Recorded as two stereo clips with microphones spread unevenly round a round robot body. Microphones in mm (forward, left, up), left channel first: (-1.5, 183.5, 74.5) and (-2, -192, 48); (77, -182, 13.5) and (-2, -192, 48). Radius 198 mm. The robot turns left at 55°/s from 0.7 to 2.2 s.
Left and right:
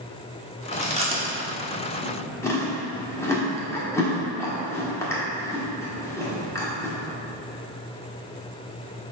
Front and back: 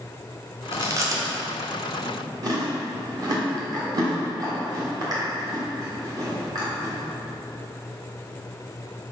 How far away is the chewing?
About 1.4 m.